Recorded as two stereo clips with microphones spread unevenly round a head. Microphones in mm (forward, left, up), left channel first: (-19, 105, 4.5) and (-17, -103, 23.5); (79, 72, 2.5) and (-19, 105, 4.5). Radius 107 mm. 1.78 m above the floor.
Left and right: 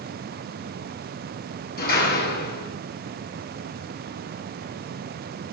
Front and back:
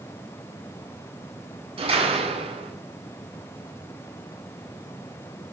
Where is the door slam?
135° left, 9.5 m.